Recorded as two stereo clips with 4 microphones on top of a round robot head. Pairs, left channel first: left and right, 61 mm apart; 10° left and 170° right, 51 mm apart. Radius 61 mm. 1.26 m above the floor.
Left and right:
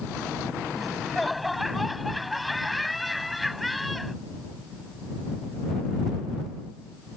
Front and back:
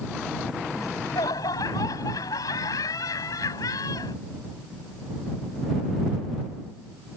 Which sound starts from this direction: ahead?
Laughter, at 0.8 s.